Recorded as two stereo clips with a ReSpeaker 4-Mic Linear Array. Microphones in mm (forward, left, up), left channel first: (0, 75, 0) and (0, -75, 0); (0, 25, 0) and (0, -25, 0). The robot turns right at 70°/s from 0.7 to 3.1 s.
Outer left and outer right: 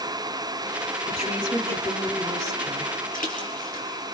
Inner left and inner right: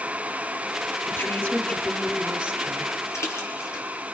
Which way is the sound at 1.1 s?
120° left.